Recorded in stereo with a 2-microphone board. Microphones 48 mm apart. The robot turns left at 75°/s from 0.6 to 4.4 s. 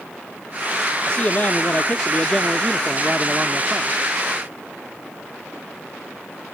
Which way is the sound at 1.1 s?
125° left.